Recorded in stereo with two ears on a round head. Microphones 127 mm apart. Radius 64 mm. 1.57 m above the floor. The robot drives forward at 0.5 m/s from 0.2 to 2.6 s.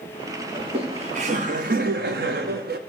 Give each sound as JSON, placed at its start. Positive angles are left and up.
{"t": 0.6, "sound": "laughter", "side_deg": -40, "distance_m": 1.2}